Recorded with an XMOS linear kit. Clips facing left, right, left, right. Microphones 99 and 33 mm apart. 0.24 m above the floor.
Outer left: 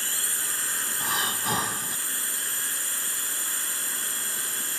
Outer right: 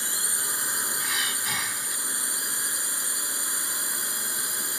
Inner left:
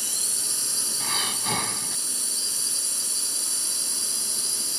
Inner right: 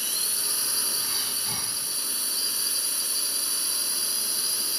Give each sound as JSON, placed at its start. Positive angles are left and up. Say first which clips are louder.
{"t": 0.0, "sound": "a drone", "louder": "outer right 1 dB, inner right 1 dB", "side_deg": -20}
{"t": 1.0, "sound": "breathing", "louder": "outer left 3 dB, inner left 4 dB", "side_deg": 40}